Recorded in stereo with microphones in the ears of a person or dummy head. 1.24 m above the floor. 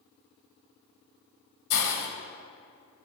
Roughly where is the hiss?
Left.